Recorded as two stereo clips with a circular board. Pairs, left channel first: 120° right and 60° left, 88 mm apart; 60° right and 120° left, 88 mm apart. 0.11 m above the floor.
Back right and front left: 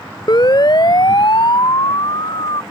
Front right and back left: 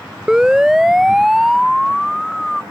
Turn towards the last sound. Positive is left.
turn(degrees=-145)